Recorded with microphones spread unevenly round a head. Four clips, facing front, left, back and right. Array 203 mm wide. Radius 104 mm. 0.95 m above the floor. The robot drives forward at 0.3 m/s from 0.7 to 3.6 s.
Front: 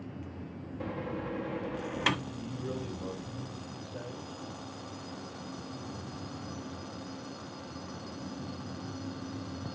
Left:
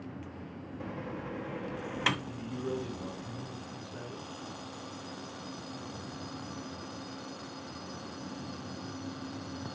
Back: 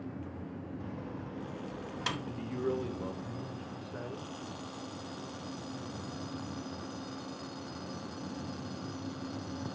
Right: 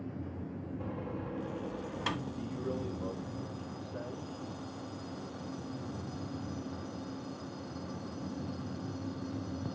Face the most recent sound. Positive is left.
turn(degrees=170)